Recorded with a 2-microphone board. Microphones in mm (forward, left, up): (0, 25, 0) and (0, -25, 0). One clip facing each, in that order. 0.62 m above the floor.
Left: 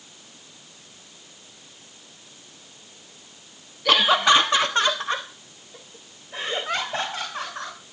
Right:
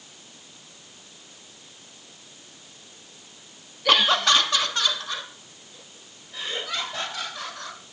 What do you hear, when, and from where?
3.9 s laughter: centre (ahead or behind), 1.1 m; by 7.8 s 35° left (ahead or behind), 5.5 m